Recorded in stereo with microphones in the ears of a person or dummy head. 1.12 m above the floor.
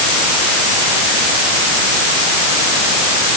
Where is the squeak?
I don't hear a squeak.